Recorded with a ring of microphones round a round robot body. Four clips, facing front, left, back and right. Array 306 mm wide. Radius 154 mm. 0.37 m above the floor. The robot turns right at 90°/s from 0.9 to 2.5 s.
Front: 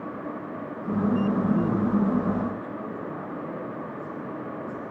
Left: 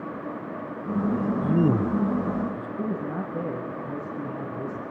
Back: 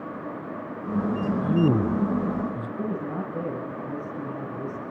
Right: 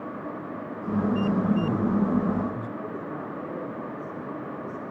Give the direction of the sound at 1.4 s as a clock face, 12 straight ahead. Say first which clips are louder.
Left 2 dB, back 2 dB; 8 o'clock.